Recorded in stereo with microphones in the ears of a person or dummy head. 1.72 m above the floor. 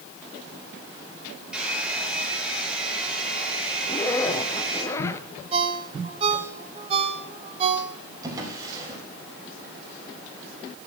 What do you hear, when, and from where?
1.5 s a hair dryer: 5° right (ahead or behind), 5 m
3.8 s a zipper: 15° left (ahead or behind), 0.9 m
5.5 s a ringtone: 35° right (ahead or behind), 1.8 m
8.2 s a drawer: 20° right (ahead or behind), 4.5 m